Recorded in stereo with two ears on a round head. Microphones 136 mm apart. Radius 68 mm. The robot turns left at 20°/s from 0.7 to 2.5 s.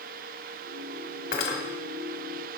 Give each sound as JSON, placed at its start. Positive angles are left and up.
{"t": 1.3, "sound": "cutlery clinking", "side_deg": 65, "distance_m": 1.2}